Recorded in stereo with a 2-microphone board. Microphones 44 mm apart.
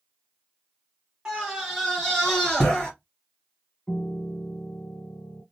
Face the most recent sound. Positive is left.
turn(degrees=30)  # may be behind; listen again after turning